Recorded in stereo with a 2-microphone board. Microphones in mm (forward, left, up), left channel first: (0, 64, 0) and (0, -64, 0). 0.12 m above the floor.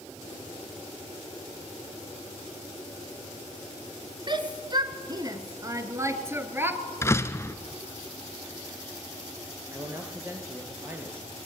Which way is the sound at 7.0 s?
20° left (ahead or behind).